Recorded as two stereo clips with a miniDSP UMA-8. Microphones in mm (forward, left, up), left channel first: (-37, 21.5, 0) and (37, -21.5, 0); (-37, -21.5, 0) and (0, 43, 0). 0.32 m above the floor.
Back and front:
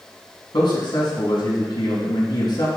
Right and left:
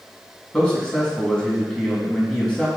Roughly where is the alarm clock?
No alarm clock in this recording.